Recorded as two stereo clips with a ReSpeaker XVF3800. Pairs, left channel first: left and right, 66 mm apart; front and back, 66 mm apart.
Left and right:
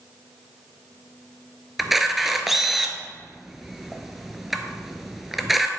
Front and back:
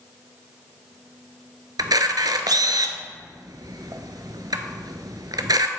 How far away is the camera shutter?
About 0.6 m.